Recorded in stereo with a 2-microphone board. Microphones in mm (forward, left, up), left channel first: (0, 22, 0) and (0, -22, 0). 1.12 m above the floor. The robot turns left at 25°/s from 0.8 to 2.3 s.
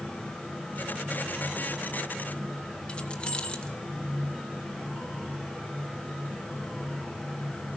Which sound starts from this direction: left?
Keys jangling, at 2.9 s.